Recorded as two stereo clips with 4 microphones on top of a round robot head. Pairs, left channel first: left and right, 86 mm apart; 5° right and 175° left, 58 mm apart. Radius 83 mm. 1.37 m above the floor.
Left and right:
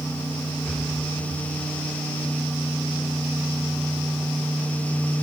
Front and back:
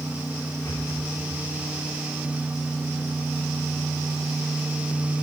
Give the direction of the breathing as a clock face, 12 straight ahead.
12 o'clock.